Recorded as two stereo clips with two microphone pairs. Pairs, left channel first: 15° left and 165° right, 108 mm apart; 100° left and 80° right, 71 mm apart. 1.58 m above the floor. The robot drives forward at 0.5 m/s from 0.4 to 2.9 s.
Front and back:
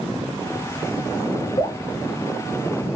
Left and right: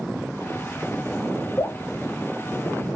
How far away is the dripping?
About 1.1 m.